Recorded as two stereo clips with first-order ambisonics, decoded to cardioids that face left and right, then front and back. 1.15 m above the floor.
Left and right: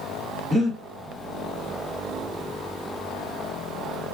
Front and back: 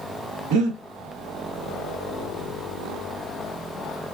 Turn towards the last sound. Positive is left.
turn(degrees=-175)